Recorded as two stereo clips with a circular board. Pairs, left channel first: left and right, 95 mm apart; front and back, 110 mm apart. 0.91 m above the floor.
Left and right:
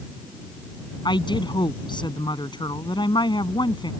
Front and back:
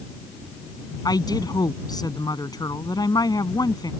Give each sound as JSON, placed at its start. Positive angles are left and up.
{"t": 1.1, "sound": "a woman speaking", "azimuth_deg": 55}